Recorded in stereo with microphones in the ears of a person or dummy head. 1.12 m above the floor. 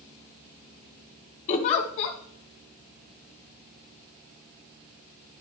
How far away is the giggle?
About 1.3 m.